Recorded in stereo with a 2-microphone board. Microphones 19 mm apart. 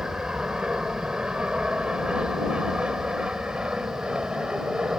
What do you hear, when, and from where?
0.0 s an aircraft: 65° right (ahead or behind)